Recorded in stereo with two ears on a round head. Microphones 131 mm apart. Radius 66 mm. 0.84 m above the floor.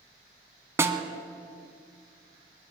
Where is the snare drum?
20° right (ahead or behind), 1.1 m.